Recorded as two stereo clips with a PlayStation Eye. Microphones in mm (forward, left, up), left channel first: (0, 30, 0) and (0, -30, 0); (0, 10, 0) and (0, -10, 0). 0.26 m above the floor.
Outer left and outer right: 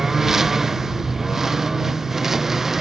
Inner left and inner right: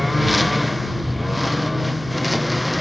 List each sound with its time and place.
0.0 s a lawn mower: 5° right (ahead or behind)